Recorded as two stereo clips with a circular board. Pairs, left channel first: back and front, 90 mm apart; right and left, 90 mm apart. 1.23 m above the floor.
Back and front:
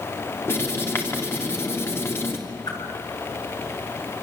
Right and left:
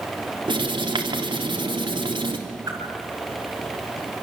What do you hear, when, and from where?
0.5 s writing: 115° left, 3 m
2.7 s a whoosh: 140° left, 6.5 m